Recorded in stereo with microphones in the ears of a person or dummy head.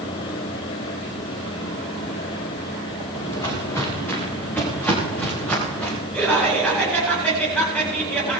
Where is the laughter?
5° left (ahead or behind), 9 m.